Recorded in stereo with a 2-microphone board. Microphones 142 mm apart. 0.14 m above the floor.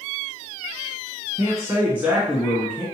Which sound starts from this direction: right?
A man speaking, at 1.4 s.